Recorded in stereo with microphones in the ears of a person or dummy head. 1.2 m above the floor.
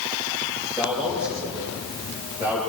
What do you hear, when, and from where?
0.8 s a man speaking: 10° right (ahead or behind), 7.5 m; by 2.6 s 15° right (ahead or behind), 10 m